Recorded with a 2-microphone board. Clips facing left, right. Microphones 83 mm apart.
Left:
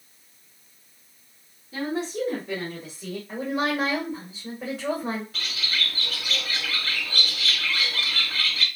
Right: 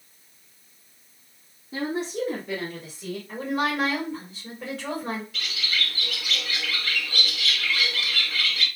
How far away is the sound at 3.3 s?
About 1.9 m.